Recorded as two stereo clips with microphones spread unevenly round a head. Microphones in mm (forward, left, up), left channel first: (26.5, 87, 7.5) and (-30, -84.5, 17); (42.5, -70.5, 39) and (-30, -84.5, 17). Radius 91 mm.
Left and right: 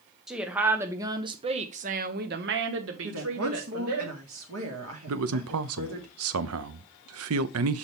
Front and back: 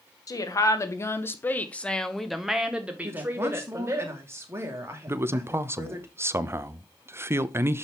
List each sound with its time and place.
0.3 s a woman speaking: 20° right, 1.3 m; by 4.0 s 115° right, 1.4 m
3.0 s a woman speaking: 110° right, 2.5 m
5.1 s a man speaking: 110° right, 0.8 m